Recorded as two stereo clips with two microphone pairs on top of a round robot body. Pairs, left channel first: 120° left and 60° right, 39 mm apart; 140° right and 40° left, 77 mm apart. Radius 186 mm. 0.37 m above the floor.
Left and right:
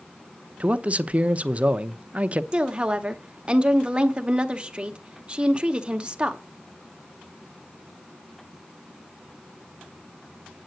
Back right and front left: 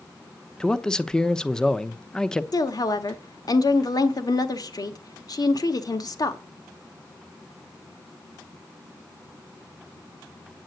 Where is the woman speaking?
120° right, 1.6 m.